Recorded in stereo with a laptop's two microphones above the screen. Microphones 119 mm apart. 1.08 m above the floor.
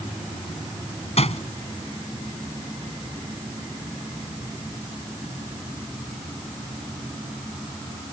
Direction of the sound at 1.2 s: 60° left (ahead or behind).